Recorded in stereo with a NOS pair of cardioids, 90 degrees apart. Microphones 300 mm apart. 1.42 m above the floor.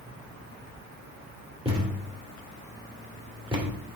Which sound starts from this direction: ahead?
A thud, at 1.6 s.